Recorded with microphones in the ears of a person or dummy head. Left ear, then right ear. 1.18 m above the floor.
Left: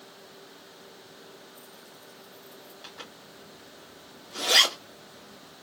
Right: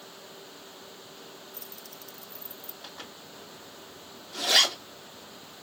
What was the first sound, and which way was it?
Keys jangling, 70° right (ahead or behind).